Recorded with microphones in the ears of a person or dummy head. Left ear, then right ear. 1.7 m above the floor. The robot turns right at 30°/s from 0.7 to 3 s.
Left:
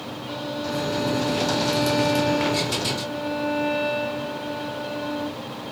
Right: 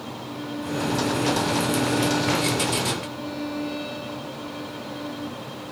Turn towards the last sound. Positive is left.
turn(degrees=130)